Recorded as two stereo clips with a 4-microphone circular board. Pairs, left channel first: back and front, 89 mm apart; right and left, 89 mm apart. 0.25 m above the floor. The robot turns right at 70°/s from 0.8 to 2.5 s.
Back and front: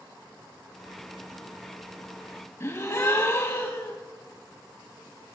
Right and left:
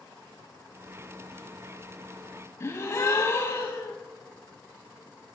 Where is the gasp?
135° right, 0.8 m.